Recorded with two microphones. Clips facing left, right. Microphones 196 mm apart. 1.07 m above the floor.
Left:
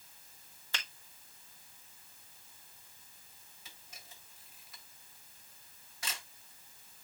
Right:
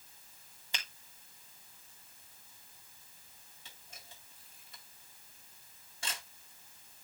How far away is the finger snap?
About 2.5 m.